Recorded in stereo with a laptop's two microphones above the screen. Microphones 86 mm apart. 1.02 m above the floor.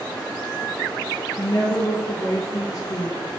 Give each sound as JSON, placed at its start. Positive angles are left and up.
{"t": 1.4, "sound": "a woman speaking", "side_deg": 40, "distance_m": 0.5}